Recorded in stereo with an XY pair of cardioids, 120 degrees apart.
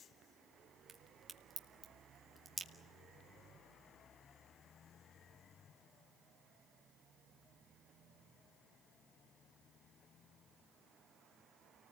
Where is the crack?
20° right, 2 m.